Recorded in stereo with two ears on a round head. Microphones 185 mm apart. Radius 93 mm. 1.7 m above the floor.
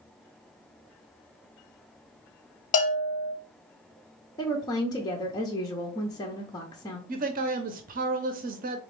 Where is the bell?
40° left (ahead or behind), 1.0 m.